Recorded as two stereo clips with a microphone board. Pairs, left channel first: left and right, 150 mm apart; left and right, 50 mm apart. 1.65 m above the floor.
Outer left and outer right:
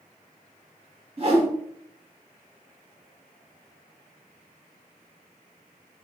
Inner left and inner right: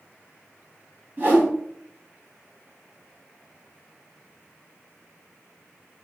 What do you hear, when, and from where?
1.2 s a whoosh: 40° right (ahead or behind), 1.6 m